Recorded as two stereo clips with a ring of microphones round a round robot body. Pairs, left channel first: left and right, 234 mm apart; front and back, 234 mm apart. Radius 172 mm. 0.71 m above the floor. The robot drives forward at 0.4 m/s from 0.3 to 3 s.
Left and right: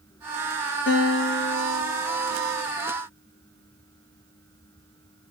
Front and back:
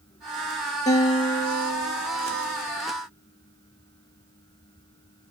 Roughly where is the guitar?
Ahead left.